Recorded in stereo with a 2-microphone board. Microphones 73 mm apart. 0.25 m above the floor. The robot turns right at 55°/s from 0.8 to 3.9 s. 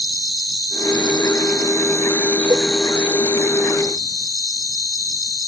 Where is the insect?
75° left; by 5.5 s 115° right.